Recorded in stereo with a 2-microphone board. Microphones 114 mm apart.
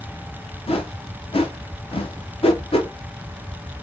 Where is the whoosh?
60° left (ahead or behind), 0.6 m.